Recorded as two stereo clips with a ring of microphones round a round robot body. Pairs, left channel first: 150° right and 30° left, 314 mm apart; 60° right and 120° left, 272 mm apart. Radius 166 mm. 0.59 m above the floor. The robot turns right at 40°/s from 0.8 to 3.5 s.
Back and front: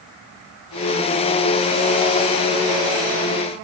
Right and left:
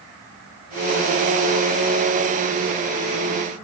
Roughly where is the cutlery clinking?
No cutlery clinking in this recording.